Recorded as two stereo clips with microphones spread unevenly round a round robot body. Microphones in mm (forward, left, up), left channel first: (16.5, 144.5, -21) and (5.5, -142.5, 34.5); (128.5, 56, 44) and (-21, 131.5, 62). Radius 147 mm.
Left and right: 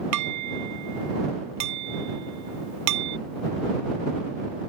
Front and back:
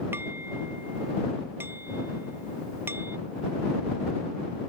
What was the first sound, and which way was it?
Dishes clattering, 125° right.